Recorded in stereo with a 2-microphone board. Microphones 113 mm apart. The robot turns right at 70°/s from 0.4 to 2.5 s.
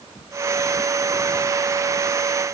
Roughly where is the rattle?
I don't hear a rattle.